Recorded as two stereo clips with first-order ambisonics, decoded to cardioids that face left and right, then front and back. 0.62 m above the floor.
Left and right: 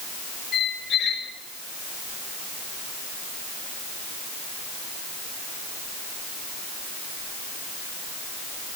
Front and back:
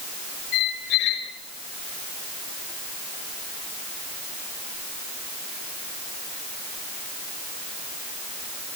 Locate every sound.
0.5 s a squeak: 35° left, 4.5 m